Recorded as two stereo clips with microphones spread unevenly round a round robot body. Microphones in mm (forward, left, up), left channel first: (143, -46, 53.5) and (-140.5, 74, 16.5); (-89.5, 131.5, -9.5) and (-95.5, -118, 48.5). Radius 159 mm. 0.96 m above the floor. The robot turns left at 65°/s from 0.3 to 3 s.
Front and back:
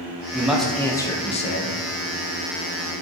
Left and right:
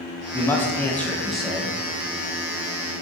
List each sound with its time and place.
0.3 s a man speaking: 100° left, 0.6 m; by 1.8 s 10° left, 0.6 m